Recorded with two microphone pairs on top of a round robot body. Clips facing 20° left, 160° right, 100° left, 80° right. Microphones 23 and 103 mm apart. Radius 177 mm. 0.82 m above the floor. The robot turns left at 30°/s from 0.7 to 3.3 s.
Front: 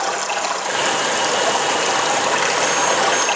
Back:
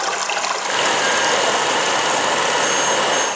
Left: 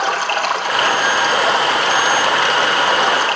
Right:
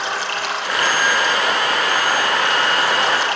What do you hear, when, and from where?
0.0 s running water: 140° left, 3 m; by 3.4 s 60° left, 3 m